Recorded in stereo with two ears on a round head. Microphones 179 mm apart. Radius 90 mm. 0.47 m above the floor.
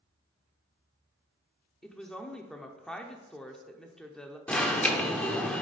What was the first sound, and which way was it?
A woman speaking, 5° left (ahead or behind).